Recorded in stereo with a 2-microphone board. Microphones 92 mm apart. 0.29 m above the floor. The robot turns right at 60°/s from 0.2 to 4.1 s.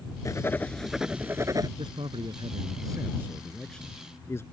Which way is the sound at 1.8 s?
110° right.